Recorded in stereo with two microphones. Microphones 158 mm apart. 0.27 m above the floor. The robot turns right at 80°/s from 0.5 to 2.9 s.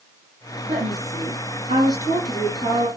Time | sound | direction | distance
0.7 | a woman speaking | 120° right | 4 m